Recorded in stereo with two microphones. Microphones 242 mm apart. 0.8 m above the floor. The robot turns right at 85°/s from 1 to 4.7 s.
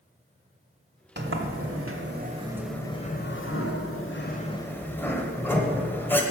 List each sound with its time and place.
1.2 s a sliding door: 130° right, 1.4 m; by 6.2 s 170° left, 1.4 m